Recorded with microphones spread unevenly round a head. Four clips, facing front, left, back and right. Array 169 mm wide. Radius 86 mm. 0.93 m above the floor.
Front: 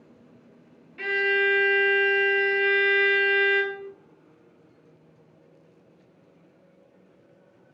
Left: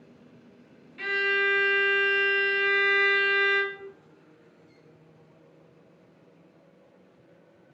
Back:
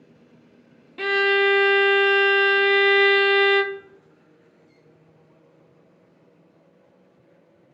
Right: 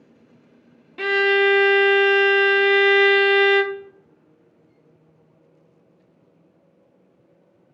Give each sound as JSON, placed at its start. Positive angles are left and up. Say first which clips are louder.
{"t": 1.0, "sound": "a violin", "louder": "right 9 dB, back 5 dB", "azimuth_deg": -125, "distance_m": 0.6}